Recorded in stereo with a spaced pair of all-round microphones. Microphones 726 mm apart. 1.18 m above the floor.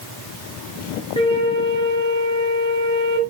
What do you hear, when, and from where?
1.2 s a flute: 5° left (ahead or behind), 2.5 m